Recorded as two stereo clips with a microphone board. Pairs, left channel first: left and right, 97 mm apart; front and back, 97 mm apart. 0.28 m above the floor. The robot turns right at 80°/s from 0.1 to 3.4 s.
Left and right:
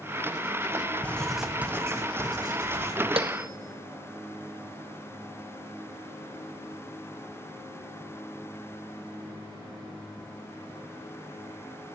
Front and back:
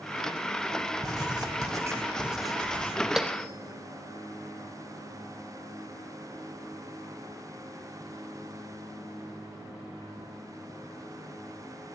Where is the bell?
95° right, 1.2 m; by 3.5 s 75° right, 1.2 m.